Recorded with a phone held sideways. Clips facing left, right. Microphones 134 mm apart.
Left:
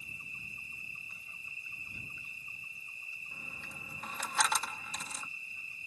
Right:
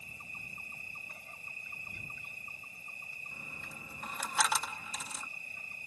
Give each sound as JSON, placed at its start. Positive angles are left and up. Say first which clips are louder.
{"t": 0.0, "sound": "an insect", "louder": "right 1 dB", "side_deg": -75}
{"t": 3.3, "sound": "a dropped coin", "louder": "even", "side_deg": -5}